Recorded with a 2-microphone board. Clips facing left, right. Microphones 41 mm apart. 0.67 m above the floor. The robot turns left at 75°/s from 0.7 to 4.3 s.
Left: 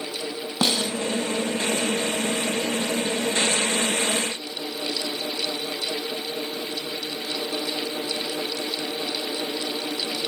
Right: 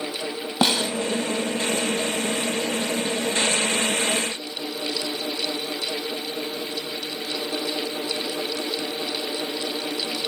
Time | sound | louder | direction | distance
0.6 | a snare drum | right 2 dB | 20° right (ahead or behind) | 4.5 m